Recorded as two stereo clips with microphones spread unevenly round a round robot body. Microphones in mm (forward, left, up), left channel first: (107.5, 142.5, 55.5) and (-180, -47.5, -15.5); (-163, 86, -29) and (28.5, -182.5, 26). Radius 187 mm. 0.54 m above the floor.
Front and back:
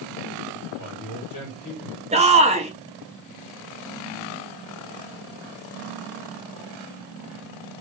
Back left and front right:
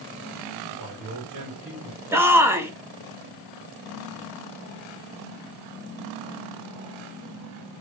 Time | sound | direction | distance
0.8 | a man speaking | 10° right | 2.5 m
2.1 | a shout | 150° right | 0.9 m